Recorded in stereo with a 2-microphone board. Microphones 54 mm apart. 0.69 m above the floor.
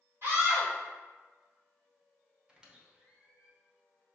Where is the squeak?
20° right (ahead or behind), 0.8 m.